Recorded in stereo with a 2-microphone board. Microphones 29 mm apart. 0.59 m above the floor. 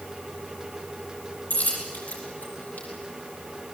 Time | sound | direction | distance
1.5 | a dropped coin | 60° left (ahead or behind) | 7 m